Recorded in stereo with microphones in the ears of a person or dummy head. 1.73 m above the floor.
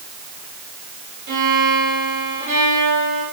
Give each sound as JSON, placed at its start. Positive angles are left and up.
{"t": 1.3, "sound": "a violin", "side_deg": -60, "distance_m": 5.0}